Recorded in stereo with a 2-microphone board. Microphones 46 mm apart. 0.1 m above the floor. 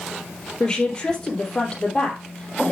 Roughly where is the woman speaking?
Centre.